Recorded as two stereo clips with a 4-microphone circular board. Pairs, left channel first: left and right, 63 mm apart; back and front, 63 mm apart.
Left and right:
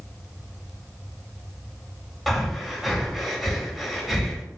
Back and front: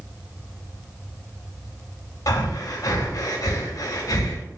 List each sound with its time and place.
2.3 s breathing: straight behind, 0.6 m